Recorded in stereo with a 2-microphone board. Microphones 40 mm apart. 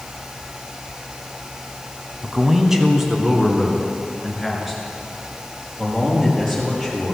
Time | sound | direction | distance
2.2 | a man speaking | 15° right (ahead or behind) | 1.5 m